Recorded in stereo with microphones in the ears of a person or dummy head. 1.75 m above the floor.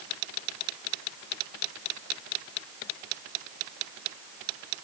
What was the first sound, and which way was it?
Only background noise.